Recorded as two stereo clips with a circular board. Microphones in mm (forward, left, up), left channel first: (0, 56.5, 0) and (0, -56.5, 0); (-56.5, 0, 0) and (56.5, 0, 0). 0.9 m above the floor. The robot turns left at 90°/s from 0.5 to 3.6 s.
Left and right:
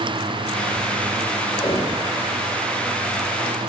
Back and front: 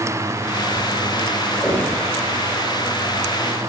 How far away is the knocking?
About 3.5 m.